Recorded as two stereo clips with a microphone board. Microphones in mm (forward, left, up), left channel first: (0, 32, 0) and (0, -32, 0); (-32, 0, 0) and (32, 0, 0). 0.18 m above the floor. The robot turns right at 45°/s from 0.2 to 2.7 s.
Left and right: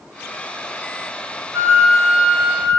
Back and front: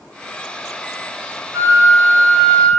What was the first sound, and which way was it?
A flute, 40° right.